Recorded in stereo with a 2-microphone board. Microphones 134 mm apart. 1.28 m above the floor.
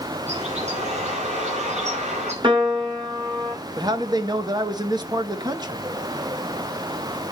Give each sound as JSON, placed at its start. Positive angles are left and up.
{"t": 0.3, "sound": "a bird", "side_deg": -60, "distance_m": 5.5}
{"t": 2.4, "sound": "a piano", "side_deg": -40, "distance_m": 2.5}
{"t": 3.8, "sound": "a man speaking", "side_deg": -30, "distance_m": 1.2}